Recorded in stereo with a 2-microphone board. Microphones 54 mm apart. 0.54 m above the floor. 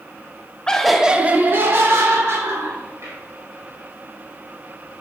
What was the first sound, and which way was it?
Laughter, 15° left (ahead or behind).